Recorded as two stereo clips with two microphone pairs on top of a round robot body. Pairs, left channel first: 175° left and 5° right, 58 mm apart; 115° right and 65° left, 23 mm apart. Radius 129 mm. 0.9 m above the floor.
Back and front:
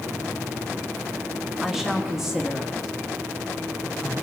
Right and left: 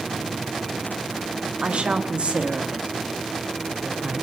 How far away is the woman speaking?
About 1.6 m.